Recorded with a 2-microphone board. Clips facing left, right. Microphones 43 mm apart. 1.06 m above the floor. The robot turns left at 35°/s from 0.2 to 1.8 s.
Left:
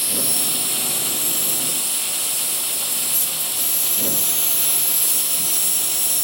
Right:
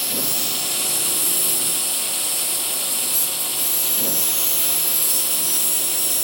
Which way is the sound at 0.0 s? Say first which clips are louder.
Even; 175° left.